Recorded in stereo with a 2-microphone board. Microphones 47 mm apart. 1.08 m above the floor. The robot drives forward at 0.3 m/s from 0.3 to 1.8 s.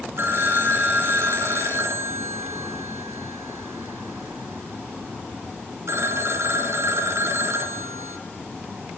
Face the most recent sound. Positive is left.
turn(degrees=-65)  # may be behind; listen again after turning